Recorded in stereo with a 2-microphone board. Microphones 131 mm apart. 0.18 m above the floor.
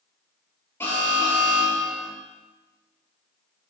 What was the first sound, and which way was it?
An alarm, 20° left (ahead or behind).